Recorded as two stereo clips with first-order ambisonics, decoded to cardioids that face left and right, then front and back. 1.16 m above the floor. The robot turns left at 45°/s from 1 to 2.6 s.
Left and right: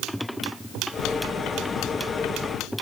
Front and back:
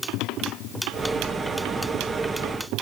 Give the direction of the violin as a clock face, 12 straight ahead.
No violin in this recording.